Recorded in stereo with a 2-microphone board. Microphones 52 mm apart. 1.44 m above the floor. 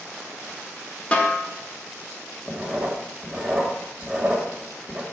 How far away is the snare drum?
About 1.2 m.